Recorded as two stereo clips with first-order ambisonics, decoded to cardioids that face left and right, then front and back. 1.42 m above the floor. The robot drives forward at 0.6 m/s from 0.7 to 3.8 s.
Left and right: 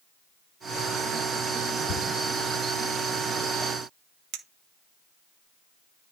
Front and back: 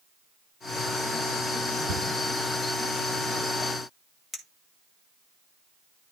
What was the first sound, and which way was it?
A cupboard door, 165° left.